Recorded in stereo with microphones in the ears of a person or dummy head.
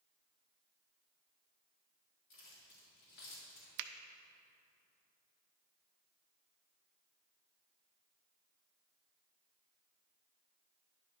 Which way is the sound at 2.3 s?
70° left (ahead or behind).